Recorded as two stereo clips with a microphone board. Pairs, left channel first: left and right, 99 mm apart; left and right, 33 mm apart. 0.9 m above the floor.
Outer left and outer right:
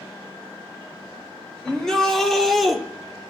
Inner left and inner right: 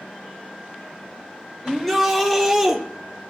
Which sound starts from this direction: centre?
A shout, at 1.6 s.